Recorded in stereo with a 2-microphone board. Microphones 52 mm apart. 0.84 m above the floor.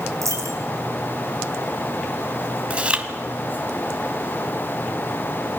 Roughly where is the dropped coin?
Right.